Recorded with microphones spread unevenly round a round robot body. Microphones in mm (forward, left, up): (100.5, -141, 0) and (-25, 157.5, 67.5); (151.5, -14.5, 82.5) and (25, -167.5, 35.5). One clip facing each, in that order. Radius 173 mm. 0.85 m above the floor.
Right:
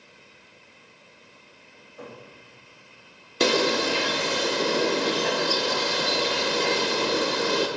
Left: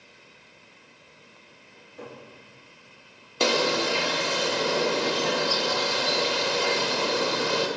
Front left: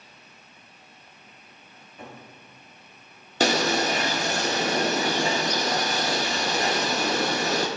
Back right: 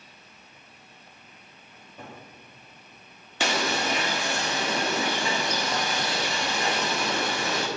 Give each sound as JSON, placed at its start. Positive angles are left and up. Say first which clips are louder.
{"t": 1.7, "sound": "a cupboard door", "louder": "even, front left 1 dB", "azimuth_deg": 165, "distance_m": 2.5}
{"t": 3.4, "sound": "a bird", "louder": "right 2 dB, front left 5 dB", "azimuth_deg": 5, "distance_m": 0.6}